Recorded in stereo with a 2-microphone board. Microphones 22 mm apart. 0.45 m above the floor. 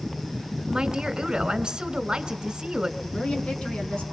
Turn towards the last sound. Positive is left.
turn(degrees=55)  # may be behind; listen again after turning